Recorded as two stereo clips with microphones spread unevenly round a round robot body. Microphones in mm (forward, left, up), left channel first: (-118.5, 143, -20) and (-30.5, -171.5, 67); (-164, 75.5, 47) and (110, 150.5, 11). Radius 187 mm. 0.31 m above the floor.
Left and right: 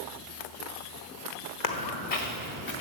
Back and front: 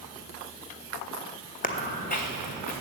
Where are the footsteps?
135° left, 1.3 m; by 2.7 s 130° left, 2.5 m.